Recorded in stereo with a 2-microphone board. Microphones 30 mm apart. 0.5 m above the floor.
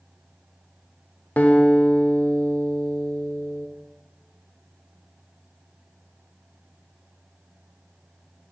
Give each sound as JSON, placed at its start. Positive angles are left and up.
{"t": 1.4, "sound": "a guitar", "side_deg": 60, "distance_m": 0.7}